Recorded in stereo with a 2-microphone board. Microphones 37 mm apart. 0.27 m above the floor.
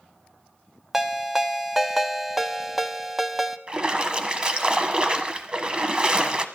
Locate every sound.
0.9 s a ringtone: 10° right (ahead or behind), 0.7 m
3.7 s a splash: 30° right (ahead or behind), 1.0 m